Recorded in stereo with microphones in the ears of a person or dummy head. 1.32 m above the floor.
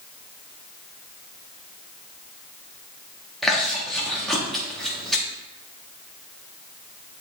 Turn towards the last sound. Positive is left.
turn(degrees=0)  # may be behind; listen again after turning